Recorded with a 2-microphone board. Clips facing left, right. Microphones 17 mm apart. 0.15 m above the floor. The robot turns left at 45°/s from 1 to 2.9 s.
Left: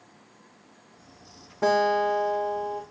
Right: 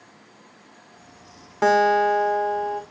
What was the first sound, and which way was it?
A guitar, 70° right.